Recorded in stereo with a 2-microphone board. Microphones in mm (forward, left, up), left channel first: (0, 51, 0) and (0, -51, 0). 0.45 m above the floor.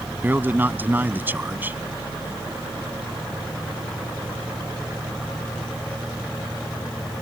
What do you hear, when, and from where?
0.2 s a man speaking: 20° right (ahead or behind)